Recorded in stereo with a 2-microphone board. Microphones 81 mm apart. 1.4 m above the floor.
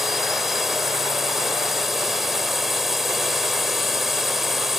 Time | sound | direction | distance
0.0 | a drone | centre (ahead or behind) | ?